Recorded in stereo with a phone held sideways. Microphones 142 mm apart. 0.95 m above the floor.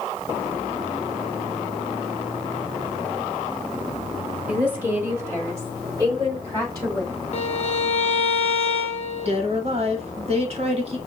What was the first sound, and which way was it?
A woman speaking, 10° right (ahead or behind).